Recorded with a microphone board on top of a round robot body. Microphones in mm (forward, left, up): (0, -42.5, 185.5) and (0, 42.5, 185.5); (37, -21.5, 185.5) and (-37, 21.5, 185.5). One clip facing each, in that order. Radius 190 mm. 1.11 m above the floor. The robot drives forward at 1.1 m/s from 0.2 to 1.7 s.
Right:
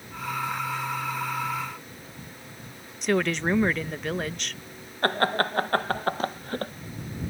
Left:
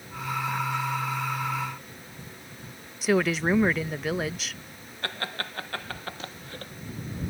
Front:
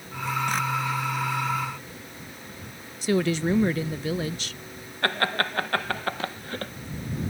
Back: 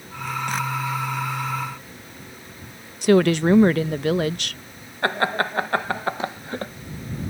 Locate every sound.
3.0 s a woman speaking: straight behind
5.0 s laughter: 135° right